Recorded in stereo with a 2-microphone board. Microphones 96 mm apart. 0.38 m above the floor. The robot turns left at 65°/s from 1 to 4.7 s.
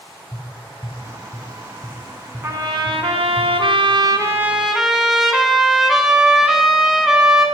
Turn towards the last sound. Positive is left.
turn(degrees=-175)